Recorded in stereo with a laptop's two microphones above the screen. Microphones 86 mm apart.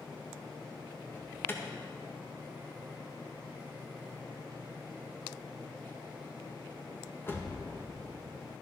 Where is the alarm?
25° left (ahead or behind), 1.8 m.